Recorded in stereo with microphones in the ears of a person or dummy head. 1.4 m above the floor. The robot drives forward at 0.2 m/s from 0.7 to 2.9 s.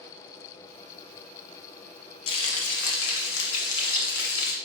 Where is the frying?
70° left (ahead or behind), 0.9 m; by 4.6 s 65° left (ahead or behind), 0.9 m.